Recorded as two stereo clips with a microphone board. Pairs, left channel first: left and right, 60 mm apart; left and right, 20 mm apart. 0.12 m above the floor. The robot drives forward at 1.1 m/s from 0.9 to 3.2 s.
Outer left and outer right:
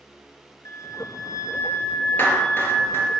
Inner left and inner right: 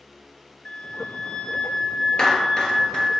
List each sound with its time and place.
0.7 s a flute: 60° left (ahead or behind), 0.7 m; by 3.2 s 15° left (ahead or behind), 2.5 m
2.2 s a clap: 35° left (ahead or behind), 1.9 m; by 3.1 s 40° left (ahead or behind), 1.6 m